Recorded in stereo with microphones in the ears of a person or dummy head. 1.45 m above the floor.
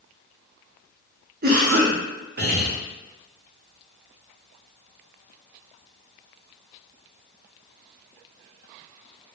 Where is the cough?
50° right (ahead or behind), 0.7 m.